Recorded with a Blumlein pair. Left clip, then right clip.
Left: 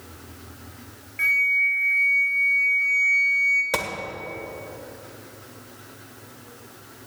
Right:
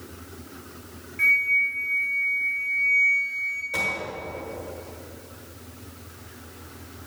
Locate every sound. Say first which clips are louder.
1.2 s a flute: even; 10° left, 1.4 m
3.7 s a gunshot: right 1 dB; 35° left, 1.5 m